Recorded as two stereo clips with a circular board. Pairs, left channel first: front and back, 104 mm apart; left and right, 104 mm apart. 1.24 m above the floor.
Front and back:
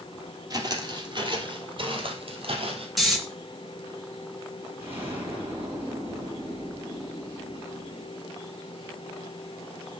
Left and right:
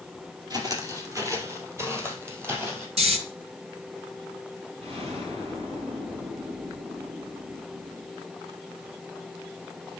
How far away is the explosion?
About 5 m.